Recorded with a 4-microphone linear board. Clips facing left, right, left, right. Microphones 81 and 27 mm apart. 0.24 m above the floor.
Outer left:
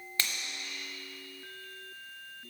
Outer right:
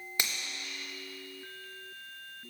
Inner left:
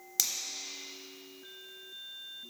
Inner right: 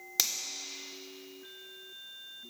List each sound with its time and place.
0.2 s a finger snap: 20° right (ahead or behind), 0.7 m